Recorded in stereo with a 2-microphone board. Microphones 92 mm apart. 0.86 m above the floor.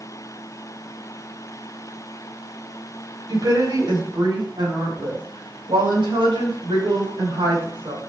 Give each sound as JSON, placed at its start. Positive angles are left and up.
{"t": 3.3, "sound": "a woman speaking", "side_deg": -50, "distance_m": 4.0}